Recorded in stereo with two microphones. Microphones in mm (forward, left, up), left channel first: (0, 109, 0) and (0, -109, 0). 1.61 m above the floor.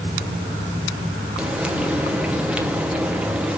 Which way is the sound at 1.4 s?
5° right (ahead or behind).